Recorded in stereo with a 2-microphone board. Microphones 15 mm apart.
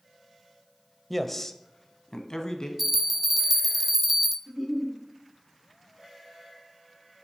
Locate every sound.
1.1 s a man speaking: 5° left (ahead or behind), 1.0 m; by 2.7 s 55° left (ahead or behind), 2.5 m
2.8 s a bell: 15° right (ahead or behind), 1.0 m
4.5 s a giggle: 10° left (ahead or behind), 6.5 m